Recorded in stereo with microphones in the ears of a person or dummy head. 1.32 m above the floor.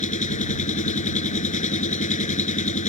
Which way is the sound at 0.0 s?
45° left (ahead or behind).